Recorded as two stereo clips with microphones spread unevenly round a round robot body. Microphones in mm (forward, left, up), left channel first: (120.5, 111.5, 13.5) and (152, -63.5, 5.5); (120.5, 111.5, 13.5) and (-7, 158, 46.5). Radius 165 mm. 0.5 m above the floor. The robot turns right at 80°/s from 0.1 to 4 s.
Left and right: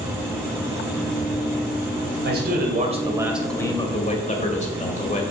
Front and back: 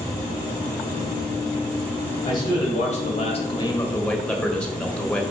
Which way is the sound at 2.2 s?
85° right.